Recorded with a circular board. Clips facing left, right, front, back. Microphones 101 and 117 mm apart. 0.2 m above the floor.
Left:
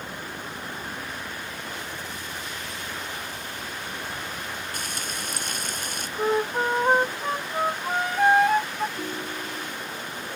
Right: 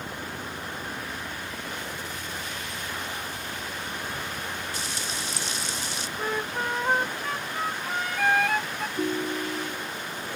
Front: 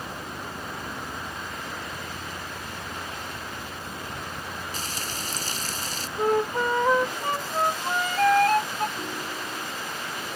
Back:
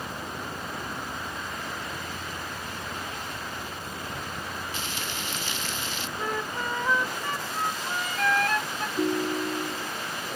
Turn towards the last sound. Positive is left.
turn(degrees=-155)